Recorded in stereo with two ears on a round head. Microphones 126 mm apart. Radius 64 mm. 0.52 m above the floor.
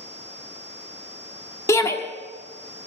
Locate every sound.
1.7 s a shout: 20° left (ahead or behind), 1.3 m